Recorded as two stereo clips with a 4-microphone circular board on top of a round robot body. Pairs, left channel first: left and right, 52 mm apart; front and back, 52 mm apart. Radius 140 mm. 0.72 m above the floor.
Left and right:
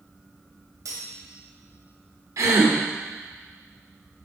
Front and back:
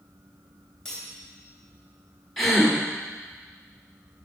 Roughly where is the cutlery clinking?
Right.